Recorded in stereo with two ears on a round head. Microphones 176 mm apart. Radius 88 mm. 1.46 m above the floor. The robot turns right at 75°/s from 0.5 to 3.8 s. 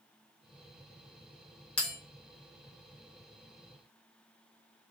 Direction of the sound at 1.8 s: 5° left (ahead or behind).